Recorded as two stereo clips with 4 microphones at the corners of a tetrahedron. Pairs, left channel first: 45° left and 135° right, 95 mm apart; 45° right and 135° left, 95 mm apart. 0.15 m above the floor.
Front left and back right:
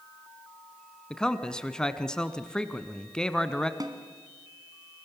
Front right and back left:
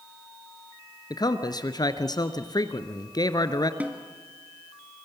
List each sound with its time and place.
1.1 s a man speaking: 35° right, 1.4 m
3.8 s a snare drum: 155° right, 2 m